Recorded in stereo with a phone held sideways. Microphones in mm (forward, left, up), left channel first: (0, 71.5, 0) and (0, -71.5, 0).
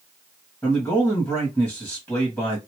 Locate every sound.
0.6 s a man speaking: 15° left (ahead or behind), 1.5 m